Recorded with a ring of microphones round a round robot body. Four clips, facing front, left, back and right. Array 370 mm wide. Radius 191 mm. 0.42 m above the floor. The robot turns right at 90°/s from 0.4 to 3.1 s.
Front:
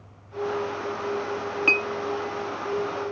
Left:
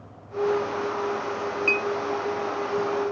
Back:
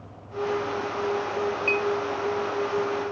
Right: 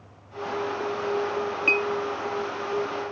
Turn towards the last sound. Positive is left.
turn(degrees=125)